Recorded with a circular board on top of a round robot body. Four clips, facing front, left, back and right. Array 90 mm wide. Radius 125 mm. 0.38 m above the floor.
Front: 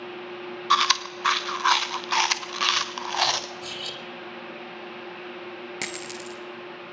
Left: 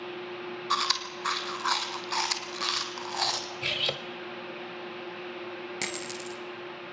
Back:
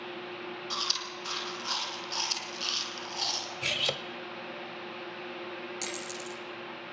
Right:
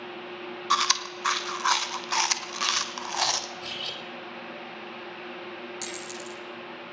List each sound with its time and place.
0.7 s chewing: 15° right, 1.2 m
3.6 s cutlery clinking: 135° left, 1.2 m
5.8 s a dropped coin: 25° left, 1.8 m